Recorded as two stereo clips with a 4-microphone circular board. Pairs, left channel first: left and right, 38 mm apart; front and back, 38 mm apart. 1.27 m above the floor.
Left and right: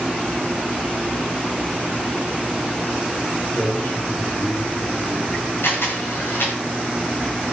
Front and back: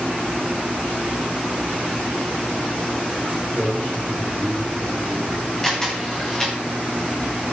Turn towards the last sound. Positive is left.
turn(degrees=75)